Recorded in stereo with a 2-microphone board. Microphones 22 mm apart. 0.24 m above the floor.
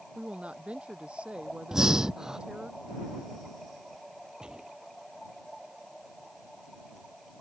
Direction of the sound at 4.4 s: 40° right (ahead or behind).